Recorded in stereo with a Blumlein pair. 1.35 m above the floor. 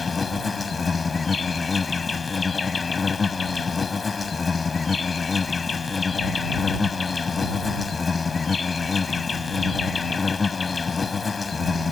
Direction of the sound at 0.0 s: 15° left.